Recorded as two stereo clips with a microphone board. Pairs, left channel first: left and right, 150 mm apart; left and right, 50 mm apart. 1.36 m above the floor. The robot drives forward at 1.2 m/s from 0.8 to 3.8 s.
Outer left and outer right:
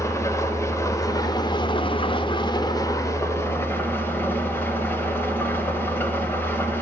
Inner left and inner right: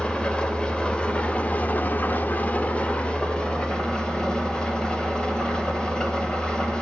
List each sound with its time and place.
0.0 s an engine running: 20° left (ahead or behind), 1.8 m; by 6.8 s 15° left (ahead or behind), 2.5 m